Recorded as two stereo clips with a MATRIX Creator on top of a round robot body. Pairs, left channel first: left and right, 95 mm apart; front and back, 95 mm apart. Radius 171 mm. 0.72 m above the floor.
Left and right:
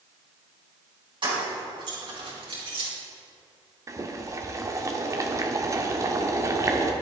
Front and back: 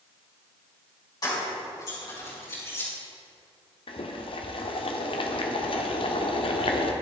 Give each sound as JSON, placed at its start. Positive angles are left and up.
{"t": 1.2, "sound": "keys jangling", "azimuth_deg": -50, "distance_m": 4.5}
{"t": 3.9, "sound": "boiling", "azimuth_deg": -30, "distance_m": 1.2}